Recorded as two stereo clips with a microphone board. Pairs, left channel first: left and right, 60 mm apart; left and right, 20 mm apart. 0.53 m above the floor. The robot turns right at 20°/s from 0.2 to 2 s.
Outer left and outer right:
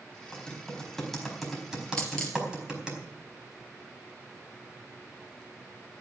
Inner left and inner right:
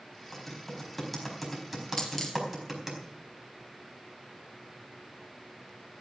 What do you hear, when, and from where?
0.3 s typing on a keyboard: 15° left (ahead or behind), 4.5 m; by 3.0 s 15° right (ahead or behind), 4.5 m
2.0 s a dropped coin: 10° left (ahead or behind), 3 m